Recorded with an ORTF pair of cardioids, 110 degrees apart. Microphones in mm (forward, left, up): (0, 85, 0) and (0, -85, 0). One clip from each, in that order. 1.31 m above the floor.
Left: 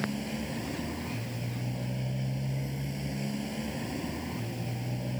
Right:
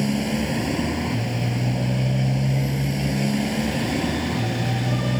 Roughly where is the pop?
No pop in this recording.